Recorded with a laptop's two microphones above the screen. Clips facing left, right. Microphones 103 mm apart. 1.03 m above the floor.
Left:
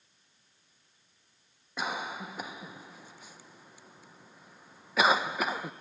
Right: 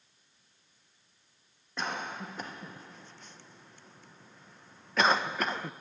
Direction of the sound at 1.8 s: 5° left (ahead or behind).